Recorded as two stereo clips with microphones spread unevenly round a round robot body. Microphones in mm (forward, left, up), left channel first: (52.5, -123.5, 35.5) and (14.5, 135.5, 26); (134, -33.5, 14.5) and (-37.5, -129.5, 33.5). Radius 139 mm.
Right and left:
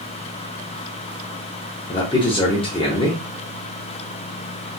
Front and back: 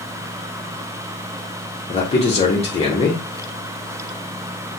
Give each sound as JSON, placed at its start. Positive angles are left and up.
{"t": 1.9, "sound": "a man speaking", "azimuth_deg": -15, "distance_m": 0.9}